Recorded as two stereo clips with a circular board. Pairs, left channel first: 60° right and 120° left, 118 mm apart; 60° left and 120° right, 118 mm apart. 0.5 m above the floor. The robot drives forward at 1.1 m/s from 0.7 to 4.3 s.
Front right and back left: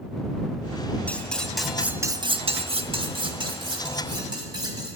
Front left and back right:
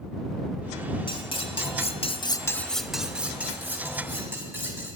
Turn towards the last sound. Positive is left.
turn(degrees=170)